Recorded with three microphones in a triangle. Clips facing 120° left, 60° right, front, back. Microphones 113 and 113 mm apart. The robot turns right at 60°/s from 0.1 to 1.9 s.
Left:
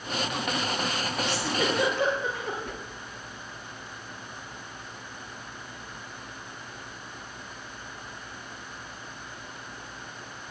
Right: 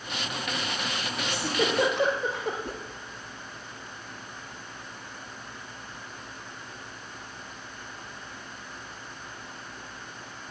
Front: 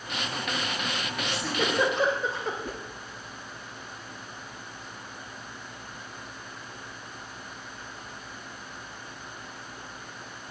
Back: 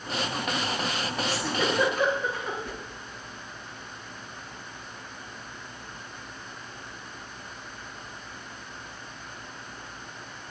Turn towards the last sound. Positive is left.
turn(degrees=-25)